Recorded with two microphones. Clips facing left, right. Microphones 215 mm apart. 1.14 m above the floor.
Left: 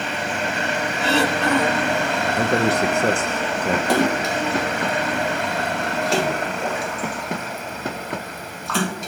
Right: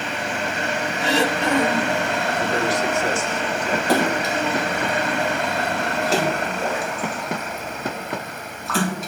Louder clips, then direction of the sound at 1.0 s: Left 1 dB; 10° right (ahead or behind).